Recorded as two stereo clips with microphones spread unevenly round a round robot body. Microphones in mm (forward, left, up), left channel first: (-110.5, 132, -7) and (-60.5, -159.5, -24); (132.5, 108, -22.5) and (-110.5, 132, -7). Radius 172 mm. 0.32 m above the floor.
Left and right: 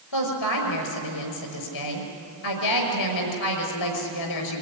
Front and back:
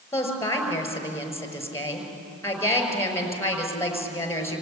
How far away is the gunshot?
No gunshot in this recording.